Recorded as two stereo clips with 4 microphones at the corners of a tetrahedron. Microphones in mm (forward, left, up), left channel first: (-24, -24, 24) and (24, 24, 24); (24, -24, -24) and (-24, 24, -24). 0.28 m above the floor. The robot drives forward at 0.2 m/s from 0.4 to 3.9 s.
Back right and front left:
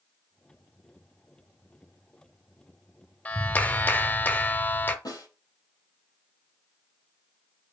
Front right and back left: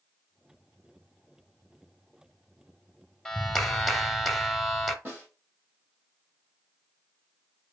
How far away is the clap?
About 0.7 m.